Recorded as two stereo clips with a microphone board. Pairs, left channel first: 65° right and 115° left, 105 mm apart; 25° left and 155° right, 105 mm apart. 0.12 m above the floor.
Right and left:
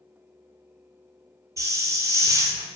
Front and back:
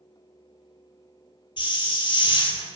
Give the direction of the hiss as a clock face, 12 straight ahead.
10 o'clock.